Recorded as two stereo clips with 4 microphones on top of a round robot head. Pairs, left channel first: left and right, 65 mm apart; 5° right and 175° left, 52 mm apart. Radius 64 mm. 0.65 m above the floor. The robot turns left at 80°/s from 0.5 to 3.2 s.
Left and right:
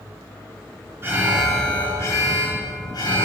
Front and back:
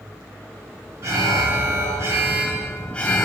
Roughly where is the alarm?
Behind right.